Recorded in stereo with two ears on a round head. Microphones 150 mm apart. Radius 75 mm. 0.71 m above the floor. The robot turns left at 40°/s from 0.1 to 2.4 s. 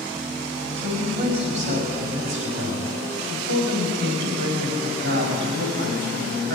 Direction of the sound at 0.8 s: 10° right.